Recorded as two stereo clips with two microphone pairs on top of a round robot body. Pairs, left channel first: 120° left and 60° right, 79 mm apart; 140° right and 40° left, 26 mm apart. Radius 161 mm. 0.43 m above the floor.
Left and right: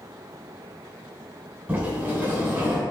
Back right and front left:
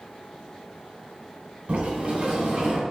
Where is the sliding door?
10° left, 2.5 m.